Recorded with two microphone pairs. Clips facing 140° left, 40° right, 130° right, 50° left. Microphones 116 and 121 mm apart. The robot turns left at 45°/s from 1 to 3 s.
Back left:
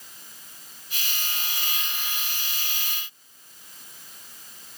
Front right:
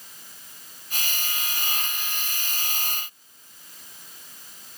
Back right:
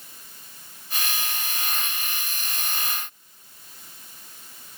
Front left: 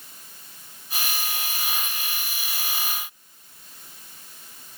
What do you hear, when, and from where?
Only background noise.